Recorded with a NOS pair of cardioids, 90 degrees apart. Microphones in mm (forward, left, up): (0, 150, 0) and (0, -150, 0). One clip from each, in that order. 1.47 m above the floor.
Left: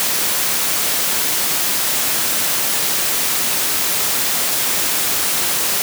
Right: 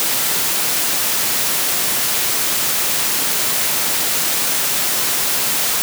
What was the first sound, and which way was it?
Only background noise.